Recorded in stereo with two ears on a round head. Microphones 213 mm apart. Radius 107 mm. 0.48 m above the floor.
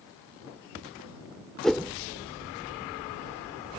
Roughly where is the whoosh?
Centre.